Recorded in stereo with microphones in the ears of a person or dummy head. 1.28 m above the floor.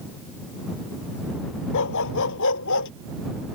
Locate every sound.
1.7 s a dog barking: 70° left (ahead or behind); by 2.9 s 75° left (ahead or behind)